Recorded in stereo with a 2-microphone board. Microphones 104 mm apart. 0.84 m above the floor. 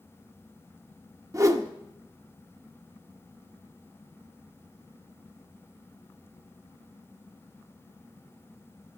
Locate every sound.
1.3 s a whoosh: 35° right (ahead or behind), 0.8 m